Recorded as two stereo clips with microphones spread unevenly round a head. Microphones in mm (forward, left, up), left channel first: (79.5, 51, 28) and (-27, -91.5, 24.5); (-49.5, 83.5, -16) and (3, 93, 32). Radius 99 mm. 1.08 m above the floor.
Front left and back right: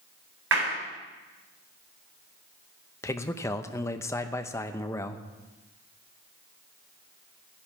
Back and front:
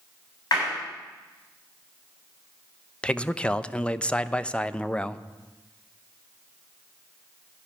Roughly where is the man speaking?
Behind left.